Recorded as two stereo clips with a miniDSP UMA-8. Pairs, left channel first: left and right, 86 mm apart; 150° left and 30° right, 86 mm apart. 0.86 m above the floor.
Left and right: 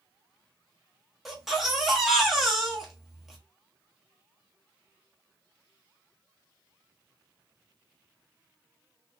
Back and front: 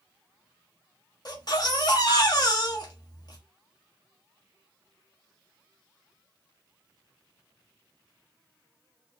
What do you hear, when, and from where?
1.2 s a baby crying: 175° right, 1.2 m